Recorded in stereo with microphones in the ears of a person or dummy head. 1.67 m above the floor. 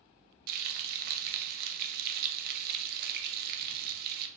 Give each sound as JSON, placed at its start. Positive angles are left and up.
{"t": 0.5, "sound": "frying", "side_deg": -60, "distance_m": 1.2}